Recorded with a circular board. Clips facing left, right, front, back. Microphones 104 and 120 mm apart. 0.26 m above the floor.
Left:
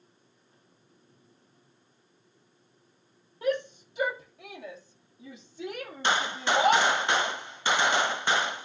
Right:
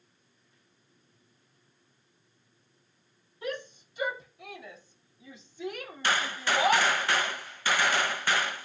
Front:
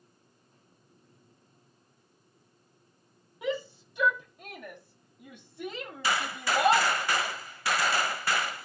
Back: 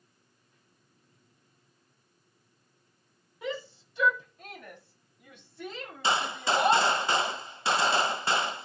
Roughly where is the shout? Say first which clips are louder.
Left 8 dB, front 4 dB; left.